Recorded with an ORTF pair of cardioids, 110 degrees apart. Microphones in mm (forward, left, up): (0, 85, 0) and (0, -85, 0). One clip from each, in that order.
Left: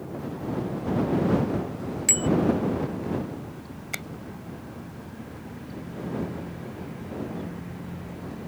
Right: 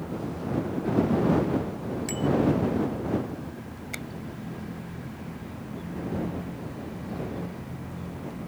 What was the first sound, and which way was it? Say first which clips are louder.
A bicycle bell: left 6 dB; 45° left.